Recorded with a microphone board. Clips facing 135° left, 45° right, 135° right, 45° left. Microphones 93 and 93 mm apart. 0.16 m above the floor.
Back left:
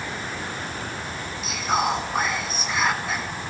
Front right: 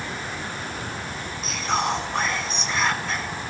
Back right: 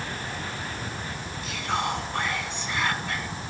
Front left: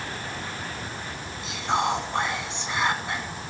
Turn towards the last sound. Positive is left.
turn(degrees=65)